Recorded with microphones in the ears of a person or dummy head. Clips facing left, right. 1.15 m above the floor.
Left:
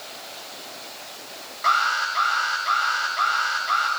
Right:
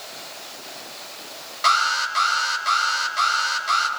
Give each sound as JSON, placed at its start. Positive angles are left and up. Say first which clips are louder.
{"t": 1.6, "sound": "an alarm", "louder": "right 1 dB", "side_deg": -50, "distance_m": 7.5}